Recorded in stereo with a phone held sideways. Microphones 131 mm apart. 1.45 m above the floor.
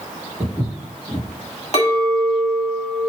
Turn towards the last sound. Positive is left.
turn(degrees=50)  # may be behind; listen again after turning